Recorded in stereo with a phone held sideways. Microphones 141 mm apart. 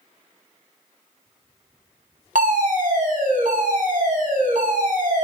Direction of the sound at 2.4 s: 75° right (ahead or behind).